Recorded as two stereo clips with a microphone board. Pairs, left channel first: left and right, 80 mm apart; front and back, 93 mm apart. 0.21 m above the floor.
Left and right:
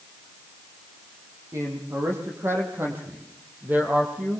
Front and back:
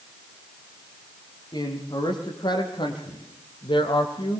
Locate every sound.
1.5 s a man speaking: 40° right, 8.5 m; by 4.4 s 15° right, 6 m